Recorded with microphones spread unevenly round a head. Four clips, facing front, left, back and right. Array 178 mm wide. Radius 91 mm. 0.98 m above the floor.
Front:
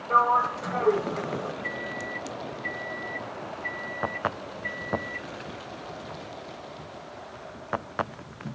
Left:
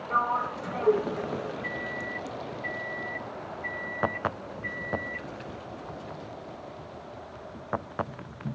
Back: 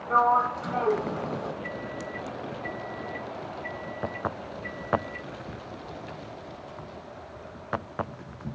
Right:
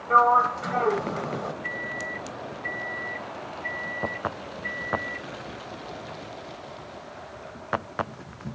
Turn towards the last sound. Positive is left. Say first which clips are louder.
# right 1 dB, front 1 dB
turn(degrees=135)